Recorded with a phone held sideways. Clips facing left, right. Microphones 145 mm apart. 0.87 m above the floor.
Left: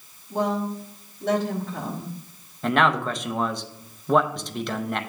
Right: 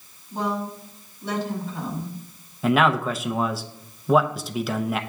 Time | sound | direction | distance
0.3 | a woman speaking | 80° left | 2 m
2.6 | a man speaking | 5° right (ahead or behind) | 0.6 m